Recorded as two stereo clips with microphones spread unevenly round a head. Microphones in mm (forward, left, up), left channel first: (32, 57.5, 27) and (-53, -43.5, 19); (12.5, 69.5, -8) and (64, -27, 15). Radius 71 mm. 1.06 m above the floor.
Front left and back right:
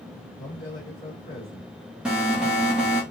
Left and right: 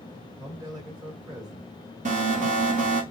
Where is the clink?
I don't hear a clink.